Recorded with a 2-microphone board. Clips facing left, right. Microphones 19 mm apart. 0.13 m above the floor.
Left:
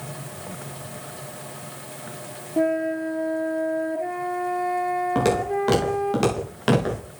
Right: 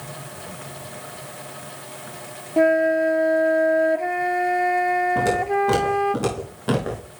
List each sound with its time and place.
2.6 s a flute: 45° right (ahead or behind), 0.7 m
5.2 s footsteps: 85° left, 7 m